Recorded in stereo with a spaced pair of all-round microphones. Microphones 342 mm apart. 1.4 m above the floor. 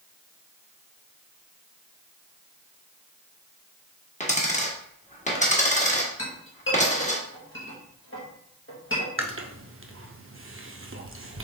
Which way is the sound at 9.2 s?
40° right (ahead or behind).